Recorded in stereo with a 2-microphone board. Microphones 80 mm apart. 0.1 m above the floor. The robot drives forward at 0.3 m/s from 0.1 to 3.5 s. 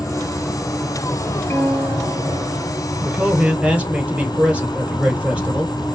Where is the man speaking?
15° right (ahead or behind), 1.8 m.